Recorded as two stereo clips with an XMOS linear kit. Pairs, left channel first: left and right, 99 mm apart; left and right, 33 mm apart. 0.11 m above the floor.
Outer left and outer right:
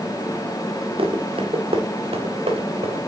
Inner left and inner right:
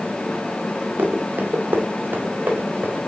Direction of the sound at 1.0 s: 70° right (ahead or behind).